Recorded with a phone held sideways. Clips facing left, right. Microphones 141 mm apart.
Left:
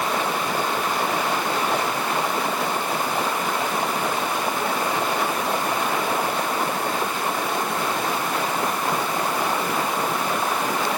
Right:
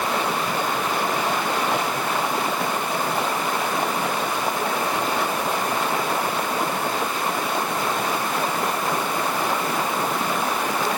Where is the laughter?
No laughter in this recording.